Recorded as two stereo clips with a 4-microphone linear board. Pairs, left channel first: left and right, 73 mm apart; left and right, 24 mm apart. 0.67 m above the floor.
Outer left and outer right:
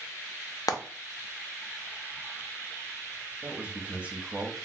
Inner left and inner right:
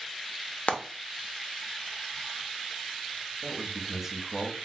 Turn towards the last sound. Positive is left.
turn(degrees=-20)  # may be behind; listen again after turning